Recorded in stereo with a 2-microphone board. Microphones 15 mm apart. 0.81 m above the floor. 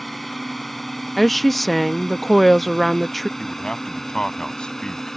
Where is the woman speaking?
Centre (ahead or behind).